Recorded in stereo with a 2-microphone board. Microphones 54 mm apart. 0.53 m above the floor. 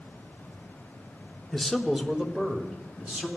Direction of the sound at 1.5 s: 10° left (ahead or behind).